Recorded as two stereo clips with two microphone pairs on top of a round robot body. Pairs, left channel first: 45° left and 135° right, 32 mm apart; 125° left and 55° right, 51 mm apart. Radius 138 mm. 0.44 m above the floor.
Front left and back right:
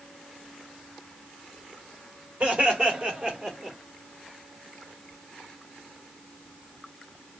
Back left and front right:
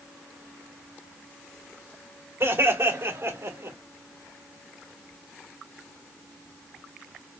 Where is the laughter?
90° right, 3 m; by 3.8 s 70° right, 2.5 m.